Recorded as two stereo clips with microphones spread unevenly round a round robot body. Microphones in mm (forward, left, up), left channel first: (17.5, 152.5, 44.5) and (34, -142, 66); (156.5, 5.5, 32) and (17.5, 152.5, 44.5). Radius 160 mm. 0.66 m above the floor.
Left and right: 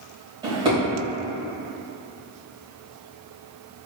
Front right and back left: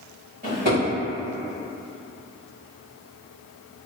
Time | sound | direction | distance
0.4 | a drawer | 160° right | 1.7 m